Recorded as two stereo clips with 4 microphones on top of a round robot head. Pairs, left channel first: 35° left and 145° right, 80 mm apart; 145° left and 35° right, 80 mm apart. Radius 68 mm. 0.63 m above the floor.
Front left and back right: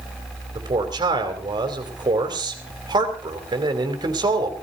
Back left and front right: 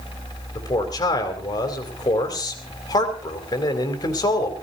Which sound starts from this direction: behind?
A man speaking, at 0.6 s.